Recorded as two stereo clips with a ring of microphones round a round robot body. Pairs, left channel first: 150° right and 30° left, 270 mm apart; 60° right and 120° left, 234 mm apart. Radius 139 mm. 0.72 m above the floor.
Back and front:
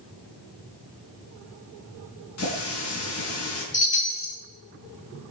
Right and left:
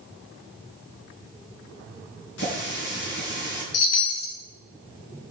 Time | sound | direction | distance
2.4 | a running tap | 110° right | 4.5 m
3.7 | a chime | 85° right | 2.5 m